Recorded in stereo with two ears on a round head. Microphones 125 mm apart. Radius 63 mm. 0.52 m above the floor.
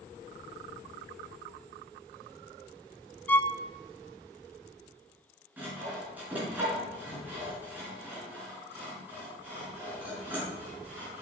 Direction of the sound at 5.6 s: 10° right (ahead or behind).